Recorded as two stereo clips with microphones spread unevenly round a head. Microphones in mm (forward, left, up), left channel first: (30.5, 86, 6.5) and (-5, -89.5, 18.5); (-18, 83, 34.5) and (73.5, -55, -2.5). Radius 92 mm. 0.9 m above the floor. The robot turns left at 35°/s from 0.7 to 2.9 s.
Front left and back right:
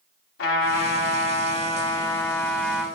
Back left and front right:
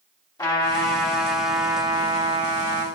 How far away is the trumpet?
About 3 m.